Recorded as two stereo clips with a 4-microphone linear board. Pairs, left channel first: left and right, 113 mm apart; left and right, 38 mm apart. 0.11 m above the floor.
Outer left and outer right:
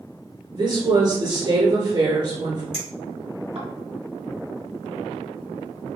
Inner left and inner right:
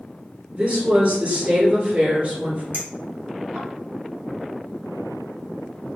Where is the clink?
65° right (ahead or behind), 1.7 m.